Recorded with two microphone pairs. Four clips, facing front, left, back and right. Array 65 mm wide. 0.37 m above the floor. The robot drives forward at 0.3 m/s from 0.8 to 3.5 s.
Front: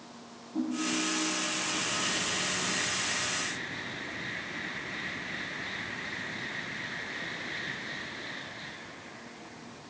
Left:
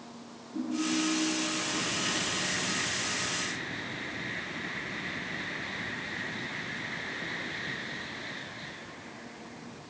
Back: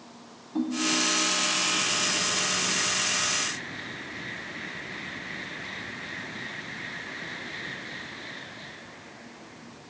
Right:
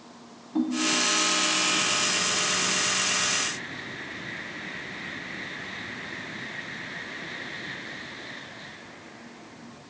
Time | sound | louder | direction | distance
0.6 | a ringtone | right 4 dB, back 4 dB | 115° right | 1.2 m